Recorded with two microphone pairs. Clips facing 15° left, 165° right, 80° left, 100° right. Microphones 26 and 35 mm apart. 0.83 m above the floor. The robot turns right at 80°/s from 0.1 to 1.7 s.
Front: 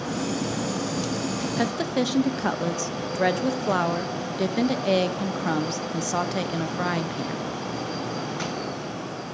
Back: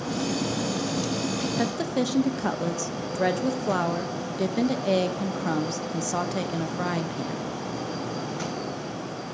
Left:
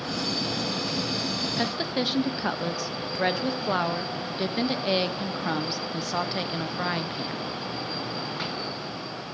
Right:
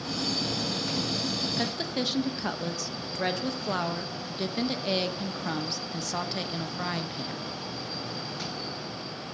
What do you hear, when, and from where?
1.6 s a woman speaking: 20° left, 0.6 m; by 7.5 s 30° left, 0.6 m